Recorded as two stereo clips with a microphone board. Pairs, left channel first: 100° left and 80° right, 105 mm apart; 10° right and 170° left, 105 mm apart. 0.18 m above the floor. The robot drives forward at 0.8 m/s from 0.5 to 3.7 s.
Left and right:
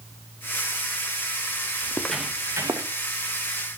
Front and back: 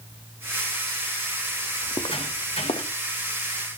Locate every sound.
1.8 s footsteps: 35° left, 0.8 m; by 2.9 s 30° right, 1.1 m